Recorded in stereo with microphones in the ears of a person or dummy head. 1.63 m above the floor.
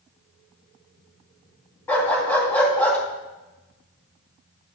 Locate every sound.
1.9 s a dog barking: 10° left (ahead or behind), 2.5 m